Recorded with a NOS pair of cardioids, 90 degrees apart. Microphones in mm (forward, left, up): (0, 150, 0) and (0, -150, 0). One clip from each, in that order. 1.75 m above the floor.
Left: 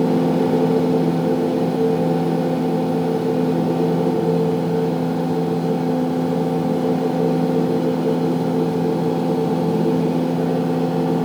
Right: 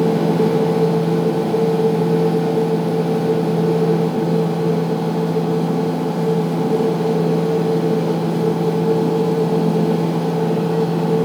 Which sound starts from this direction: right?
A machine running, at 0.0 s.